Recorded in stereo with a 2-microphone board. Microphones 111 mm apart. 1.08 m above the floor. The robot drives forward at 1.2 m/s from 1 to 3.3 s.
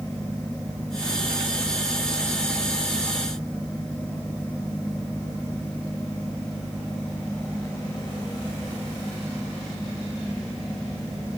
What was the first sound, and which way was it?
Only background noise.